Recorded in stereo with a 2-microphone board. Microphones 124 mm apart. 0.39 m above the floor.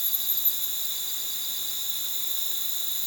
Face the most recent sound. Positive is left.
turn(degrees=0)  # may be behind; listen again after turning